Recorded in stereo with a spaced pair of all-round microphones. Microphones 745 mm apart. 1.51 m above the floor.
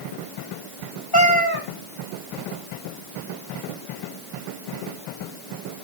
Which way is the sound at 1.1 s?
30° left (ahead or behind).